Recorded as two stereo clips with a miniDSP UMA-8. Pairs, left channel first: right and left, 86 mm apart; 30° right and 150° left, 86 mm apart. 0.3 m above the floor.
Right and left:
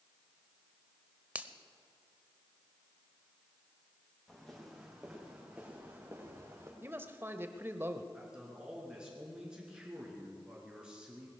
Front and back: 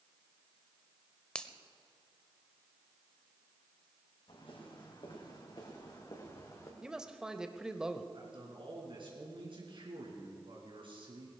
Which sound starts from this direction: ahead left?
A finger snap, at 1.4 s.